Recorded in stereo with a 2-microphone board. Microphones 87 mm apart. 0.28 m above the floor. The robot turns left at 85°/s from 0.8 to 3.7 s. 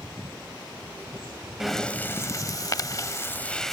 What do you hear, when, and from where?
1.6 s breathing: 5° right (ahead or behind); by 3.7 s 5° left (ahead or behind)